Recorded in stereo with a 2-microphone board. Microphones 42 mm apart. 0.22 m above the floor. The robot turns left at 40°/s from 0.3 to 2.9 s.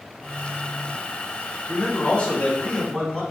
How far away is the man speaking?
About 1.3 m.